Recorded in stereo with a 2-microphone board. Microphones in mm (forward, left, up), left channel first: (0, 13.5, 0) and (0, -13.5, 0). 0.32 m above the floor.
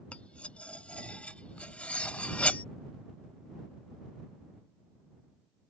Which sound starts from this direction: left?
Cutlery clinking, at 0.1 s.